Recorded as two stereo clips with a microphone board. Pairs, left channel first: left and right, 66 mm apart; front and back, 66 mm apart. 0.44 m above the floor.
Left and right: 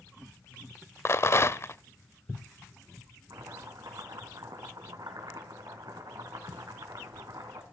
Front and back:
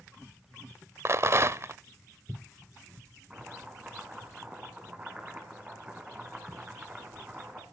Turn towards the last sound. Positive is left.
turn(degrees=-105)